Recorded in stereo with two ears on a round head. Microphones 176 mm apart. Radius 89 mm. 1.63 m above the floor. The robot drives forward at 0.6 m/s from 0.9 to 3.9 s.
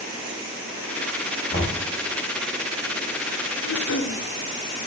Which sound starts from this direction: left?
Throat clearing, at 3.6 s.